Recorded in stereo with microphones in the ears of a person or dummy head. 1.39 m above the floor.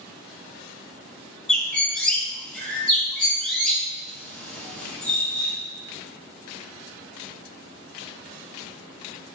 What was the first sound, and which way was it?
A bird, 5° left (ahead or behind).